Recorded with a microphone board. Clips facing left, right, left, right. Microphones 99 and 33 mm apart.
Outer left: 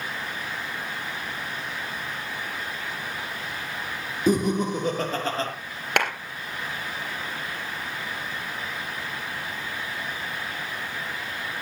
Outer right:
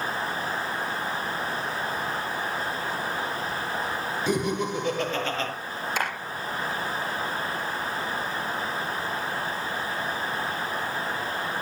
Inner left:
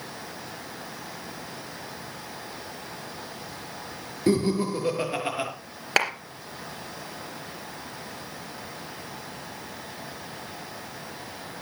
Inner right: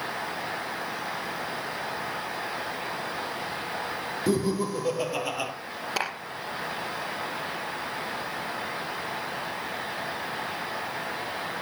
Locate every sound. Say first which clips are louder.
4.3 s laughter: outer left 5 dB, inner left 3 dB; 40° left (ahead or behind), 5 m; by 5.5 s 35° left (ahead or behind), 4 m
6.0 s a clap: outer left 5 dB, inner left 7 dB; 60° left (ahead or behind), 3.5 m